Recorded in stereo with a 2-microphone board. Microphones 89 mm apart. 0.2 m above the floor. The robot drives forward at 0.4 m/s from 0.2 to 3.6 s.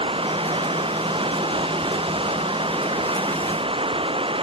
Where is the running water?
80° right.